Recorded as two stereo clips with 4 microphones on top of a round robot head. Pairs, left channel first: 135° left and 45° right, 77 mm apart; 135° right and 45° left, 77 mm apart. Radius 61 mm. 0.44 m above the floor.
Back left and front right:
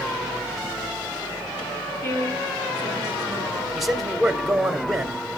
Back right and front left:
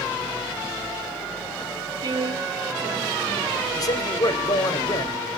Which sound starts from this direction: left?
A woman speaking, at 2.0 s.